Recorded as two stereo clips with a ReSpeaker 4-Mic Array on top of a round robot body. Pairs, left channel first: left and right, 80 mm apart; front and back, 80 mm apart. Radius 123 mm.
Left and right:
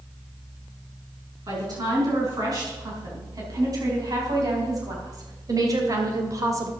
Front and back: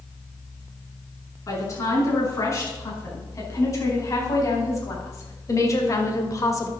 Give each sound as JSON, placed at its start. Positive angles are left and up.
{"t": 1.5, "sound": "a woman speaking", "azimuth_deg": -50, "distance_m": 6.5}